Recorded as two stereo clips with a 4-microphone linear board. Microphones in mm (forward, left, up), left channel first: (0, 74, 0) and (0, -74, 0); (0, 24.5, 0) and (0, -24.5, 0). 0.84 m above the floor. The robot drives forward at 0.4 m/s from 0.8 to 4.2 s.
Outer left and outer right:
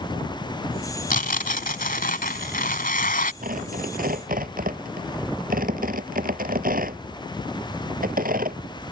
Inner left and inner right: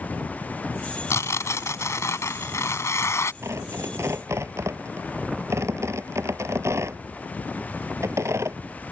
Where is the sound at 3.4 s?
70° right (ahead or behind).